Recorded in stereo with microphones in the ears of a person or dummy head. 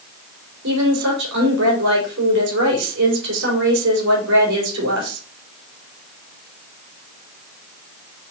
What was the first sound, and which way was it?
A woman speaking, 70° right (ahead or behind).